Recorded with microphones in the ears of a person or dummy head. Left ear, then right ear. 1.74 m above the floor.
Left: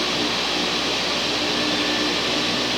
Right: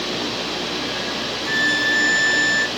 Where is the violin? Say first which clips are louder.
Right 3 dB; 60° right (ahead or behind), 0.6 m.